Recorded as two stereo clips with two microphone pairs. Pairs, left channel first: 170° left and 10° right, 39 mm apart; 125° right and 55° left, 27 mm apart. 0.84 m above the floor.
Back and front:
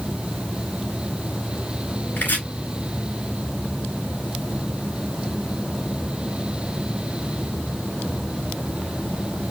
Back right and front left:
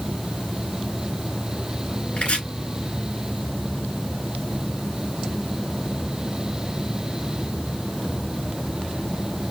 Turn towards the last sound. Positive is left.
turn(degrees=-155)